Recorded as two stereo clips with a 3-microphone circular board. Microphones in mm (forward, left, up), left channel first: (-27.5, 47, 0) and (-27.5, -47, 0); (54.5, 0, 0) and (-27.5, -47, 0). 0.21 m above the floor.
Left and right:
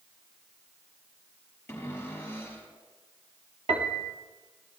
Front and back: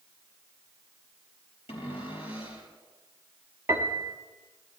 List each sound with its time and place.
1.7 s a cupboard door: 20° left, 4 m
3.7 s a piano: 85° right, 1.3 m